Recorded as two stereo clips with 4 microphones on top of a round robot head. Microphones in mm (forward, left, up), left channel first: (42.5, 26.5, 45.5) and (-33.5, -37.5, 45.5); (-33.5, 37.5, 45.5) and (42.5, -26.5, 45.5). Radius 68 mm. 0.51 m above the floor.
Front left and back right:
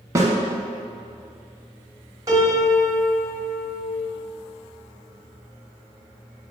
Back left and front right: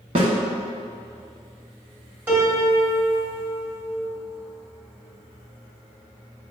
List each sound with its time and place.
0.1 s a snare drum: 80° right, 1.1 m
2.3 s a piano: 105° right, 1.8 m